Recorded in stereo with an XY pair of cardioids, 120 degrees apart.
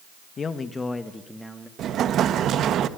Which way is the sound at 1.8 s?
55° right.